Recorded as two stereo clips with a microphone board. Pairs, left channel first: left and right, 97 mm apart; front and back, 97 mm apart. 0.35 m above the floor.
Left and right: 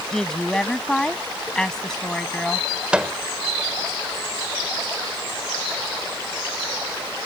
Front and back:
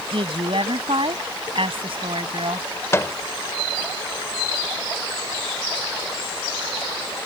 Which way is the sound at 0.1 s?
175° left.